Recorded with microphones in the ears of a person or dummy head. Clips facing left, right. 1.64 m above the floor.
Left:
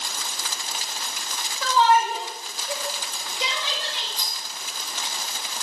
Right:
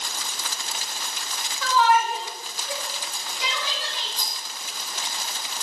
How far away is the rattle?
About 2.5 m.